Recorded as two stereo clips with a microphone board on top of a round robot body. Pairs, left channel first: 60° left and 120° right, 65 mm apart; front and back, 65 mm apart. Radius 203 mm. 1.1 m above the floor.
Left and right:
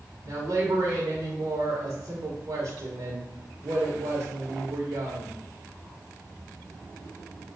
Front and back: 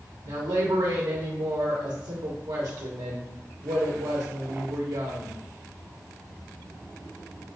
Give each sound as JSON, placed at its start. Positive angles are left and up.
{"t": 0.2, "sound": "a woman speaking", "azimuth_deg": -165, "distance_m": 1.1}